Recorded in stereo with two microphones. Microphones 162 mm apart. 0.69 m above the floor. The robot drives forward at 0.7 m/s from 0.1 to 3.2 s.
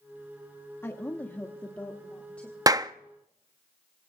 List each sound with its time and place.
0.8 s a woman speaking: 15° left (ahead or behind), 1.0 m; by 2.6 s 5° left (ahead or behind), 2.0 m
2.7 s a clap: 20° right (ahead or behind), 0.6 m; by 2.9 s 25° right (ahead or behind), 0.5 m